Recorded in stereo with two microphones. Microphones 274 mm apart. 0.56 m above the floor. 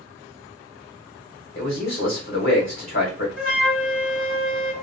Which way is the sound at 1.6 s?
45° left (ahead or behind).